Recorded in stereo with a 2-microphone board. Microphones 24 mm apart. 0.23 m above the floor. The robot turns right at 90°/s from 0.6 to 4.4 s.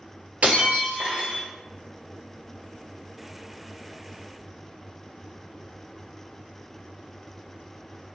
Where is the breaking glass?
100° right, 1.5 m; by 1.4 s 25° right, 1.5 m.